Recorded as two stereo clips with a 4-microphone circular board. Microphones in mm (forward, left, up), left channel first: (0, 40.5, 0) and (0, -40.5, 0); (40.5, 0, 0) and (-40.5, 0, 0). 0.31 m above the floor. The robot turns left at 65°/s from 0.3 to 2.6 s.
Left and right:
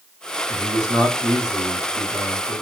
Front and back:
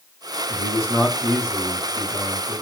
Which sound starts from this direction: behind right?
A man speaking, at 0.5 s.